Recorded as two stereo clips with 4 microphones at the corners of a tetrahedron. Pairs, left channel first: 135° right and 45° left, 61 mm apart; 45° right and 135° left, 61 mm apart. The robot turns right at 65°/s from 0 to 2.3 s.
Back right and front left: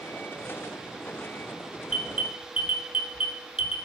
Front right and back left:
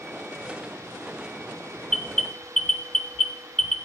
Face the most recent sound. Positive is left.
turn(degrees=30)